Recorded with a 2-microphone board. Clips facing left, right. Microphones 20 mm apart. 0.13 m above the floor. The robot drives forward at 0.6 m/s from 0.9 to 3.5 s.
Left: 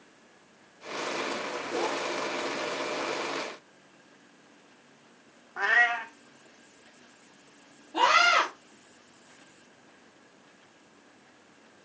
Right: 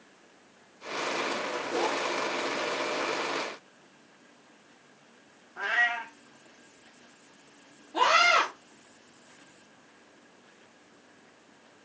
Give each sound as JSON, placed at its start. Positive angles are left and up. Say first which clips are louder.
{"t": 5.6, "sound": "a cat meowing", "louder": "left 3 dB", "side_deg": 75, "distance_m": 1.4}
{"t": 7.9, "sound": "a scream", "louder": "even", "side_deg": 35, "distance_m": 4.5}